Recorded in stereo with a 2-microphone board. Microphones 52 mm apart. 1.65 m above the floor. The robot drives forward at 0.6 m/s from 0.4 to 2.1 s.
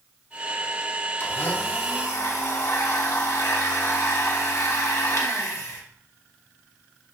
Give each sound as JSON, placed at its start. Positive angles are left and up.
{"t": 1.2, "sound": "a blender", "side_deg": 40, "distance_m": 1.4}